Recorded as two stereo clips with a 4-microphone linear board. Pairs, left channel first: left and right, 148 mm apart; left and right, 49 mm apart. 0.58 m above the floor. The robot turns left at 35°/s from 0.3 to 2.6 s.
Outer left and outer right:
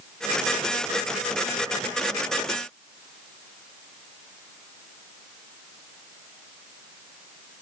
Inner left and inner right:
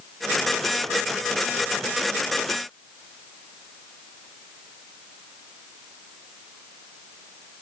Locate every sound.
Only background noise.